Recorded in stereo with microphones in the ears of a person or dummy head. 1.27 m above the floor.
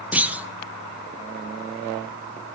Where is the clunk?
10° right (ahead or behind), 0.7 m.